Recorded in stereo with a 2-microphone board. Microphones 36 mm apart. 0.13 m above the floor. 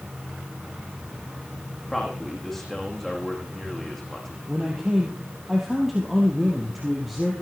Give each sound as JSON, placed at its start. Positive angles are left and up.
{"t": 1.9, "sound": "a man speaking", "side_deg": 10, "distance_m": 7.0}
{"t": 4.5, "sound": "a man speaking", "side_deg": -5, "distance_m": 3.0}